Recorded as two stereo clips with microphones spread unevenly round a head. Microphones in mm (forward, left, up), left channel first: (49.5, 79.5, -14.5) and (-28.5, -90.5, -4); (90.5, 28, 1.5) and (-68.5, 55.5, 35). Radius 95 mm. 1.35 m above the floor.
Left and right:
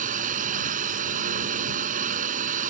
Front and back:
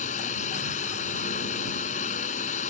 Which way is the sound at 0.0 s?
65° right.